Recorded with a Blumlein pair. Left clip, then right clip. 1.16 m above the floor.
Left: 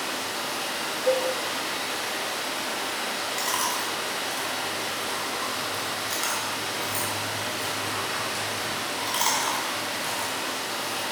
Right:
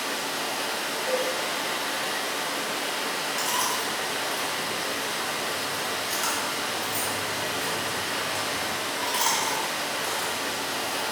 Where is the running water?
5° right, 0.7 m.